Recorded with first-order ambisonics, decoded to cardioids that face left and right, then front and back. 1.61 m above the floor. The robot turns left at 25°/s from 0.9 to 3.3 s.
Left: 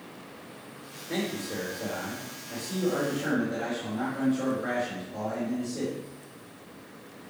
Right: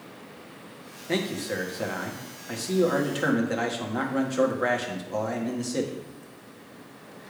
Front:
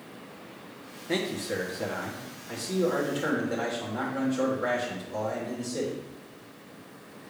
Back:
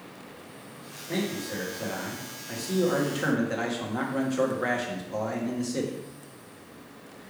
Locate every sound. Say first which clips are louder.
1.1 s a man speaking: right 4 dB, front 2 dB; 60° right, 1.7 m; by 6.0 s 115° right, 1.7 m